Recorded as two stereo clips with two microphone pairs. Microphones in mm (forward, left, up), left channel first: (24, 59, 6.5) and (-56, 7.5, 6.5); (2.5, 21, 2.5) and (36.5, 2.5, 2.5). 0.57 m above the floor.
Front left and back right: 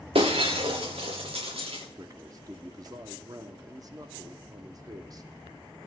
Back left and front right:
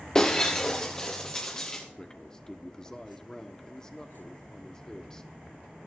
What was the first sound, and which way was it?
Breaking glass, 135° right.